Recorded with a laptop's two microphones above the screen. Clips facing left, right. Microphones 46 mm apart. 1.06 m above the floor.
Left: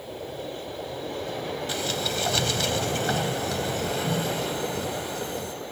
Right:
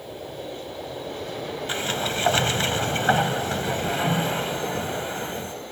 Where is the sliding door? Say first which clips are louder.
Right 4 dB; 30° right (ahead or behind).